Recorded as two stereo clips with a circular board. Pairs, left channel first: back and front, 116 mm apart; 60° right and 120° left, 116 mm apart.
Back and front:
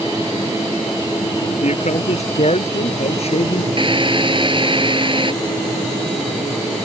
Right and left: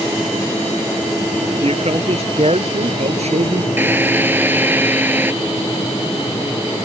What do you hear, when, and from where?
1.6 s a man speaking: 155° left; by 3.7 s 145° left
3.8 s a drill: 45° left